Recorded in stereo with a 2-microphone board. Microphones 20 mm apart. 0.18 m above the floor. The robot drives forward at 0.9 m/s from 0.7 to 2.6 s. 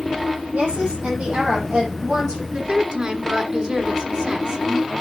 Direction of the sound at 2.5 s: 50° right (ahead or behind).